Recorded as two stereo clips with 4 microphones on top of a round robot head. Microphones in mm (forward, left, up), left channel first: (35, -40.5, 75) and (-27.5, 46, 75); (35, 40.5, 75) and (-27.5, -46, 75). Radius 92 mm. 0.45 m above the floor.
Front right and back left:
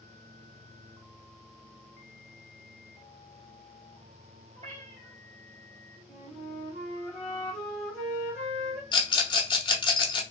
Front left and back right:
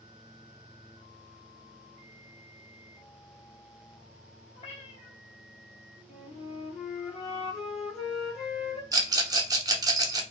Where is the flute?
30° left, 2.0 m.